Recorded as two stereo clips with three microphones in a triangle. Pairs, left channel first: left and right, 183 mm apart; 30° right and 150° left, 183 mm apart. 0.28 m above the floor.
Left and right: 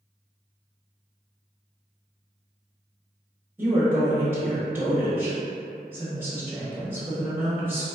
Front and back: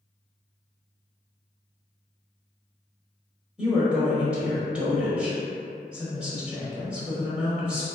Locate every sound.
3.6 s a woman speaking: 140° right, 0.9 m